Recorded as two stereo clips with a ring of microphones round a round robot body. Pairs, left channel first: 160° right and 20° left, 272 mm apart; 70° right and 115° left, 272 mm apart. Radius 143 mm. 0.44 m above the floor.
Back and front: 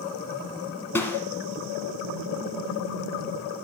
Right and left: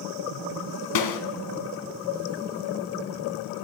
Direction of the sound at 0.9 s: 75° right.